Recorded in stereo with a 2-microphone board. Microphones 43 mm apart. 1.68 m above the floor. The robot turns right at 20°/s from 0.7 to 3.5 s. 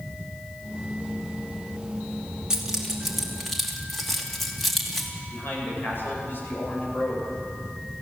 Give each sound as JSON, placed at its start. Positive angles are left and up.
{"t": 2.5, "sound": "keys jangling", "side_deg": -15, "distance_m": 2.5}
{"t": 5.3, "sound": "a man speaking", "side_deg": 55, "distance_m": 9.5}